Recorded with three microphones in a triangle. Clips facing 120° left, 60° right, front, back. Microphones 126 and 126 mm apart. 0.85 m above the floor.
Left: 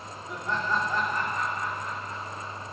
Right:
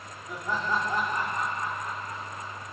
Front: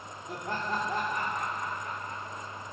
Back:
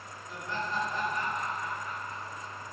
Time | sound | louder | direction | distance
0.3 | laughter | even, front 2 dB | 30° left | 2.5 m